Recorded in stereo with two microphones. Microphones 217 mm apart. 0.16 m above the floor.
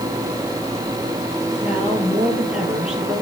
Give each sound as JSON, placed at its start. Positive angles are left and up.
{"t": 1.6, "sound": "a woman speaking", "side_deg": -5, "distance_m": 4.5}